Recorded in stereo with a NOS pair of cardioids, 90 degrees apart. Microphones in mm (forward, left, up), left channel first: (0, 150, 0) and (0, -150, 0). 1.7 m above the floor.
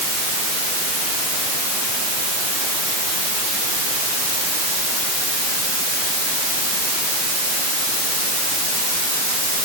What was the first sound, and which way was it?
Only background noise.